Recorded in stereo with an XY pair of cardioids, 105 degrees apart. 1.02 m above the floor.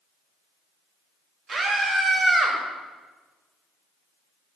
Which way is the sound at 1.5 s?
50° right.